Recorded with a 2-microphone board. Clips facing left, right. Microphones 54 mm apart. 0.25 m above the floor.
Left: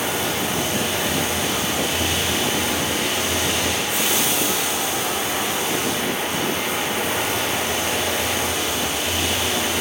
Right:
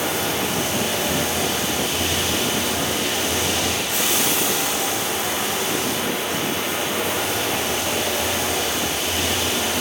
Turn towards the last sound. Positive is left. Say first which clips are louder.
# even
turn(degrees=-75)  # may be behind; listen again after turning